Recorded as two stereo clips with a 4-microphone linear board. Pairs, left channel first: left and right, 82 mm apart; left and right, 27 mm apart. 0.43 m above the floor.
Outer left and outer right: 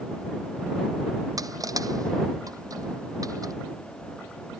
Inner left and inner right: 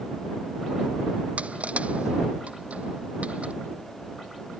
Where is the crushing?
45° right (ahead or behind).